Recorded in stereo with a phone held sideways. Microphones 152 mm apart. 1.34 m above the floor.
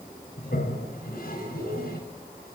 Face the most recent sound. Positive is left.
turn(degrees=80)